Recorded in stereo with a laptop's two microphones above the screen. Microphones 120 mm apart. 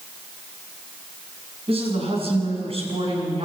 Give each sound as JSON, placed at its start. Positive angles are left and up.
{"t": 1.7, "sound": "a woman speaking", "side_deg": -55, "distance_m": 6.5}